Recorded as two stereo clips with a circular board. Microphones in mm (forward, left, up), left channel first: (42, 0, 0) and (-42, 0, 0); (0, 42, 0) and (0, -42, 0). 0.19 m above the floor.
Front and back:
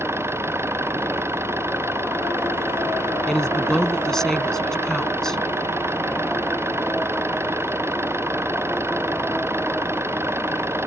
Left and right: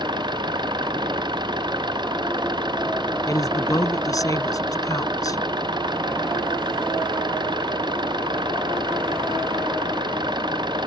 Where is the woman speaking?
80° left.